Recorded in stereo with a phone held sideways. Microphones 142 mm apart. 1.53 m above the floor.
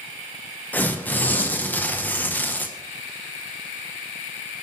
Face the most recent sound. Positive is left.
turn(degrees=10)  # may be behind; listen again after turning